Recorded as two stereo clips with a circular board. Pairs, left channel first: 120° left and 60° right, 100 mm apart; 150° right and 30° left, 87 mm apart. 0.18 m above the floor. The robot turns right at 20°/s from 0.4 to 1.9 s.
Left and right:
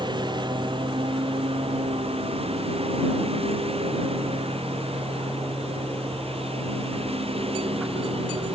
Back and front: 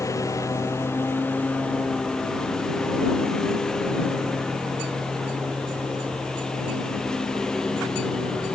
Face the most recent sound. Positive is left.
turn(degrees=-65)